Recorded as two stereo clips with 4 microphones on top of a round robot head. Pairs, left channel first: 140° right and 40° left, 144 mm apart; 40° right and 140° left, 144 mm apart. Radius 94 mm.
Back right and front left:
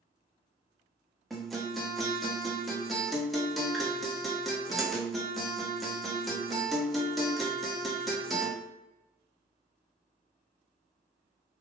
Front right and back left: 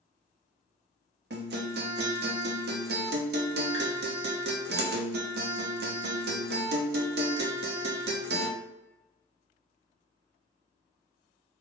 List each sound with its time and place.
1.3 s a guitar: 135° left, 0.6 m